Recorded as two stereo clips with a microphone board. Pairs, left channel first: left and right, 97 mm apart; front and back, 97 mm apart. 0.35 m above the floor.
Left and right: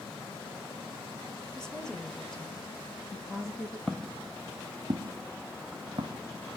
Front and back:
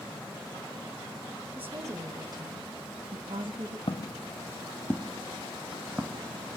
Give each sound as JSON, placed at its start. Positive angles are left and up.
{"t": 1.6, "sound": "a woman speaking", "azimuth_deg": 150, "distance_m": 1.0}
{"t": 3.9, "sound": "footsteps", "azimuth_deg": 5, "distance_m": 0.6}